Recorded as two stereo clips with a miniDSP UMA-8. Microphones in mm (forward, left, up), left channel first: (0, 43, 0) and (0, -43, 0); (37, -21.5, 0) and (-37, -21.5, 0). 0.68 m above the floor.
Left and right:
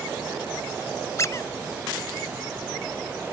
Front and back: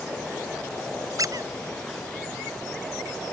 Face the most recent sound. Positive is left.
turn(degrees=145)